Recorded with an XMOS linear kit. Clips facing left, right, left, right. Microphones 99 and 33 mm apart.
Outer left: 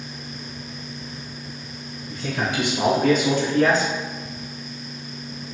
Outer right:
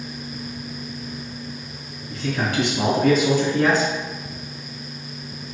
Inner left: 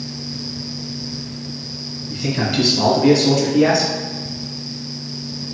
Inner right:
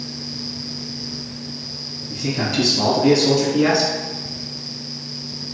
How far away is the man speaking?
About 1.2 m.